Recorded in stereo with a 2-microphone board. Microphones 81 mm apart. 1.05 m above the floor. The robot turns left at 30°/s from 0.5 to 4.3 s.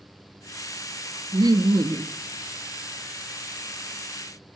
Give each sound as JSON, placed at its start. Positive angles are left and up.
{"t": 1.3, "sound": "laughter", "side_deg": -55, "distance_m": 0.5}